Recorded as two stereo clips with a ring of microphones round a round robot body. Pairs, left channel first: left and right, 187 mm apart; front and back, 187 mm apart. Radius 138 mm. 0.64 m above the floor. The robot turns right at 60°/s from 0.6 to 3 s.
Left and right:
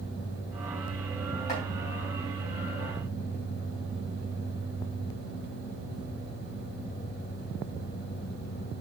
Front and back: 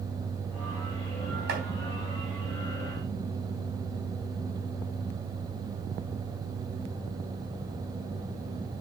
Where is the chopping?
150° left, 4 m; by 1.6 s 160° left, 4 m.